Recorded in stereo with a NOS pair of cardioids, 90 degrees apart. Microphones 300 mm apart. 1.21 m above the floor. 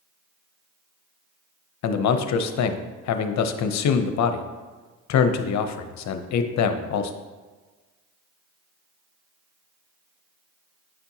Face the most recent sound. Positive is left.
turn(degrees=65)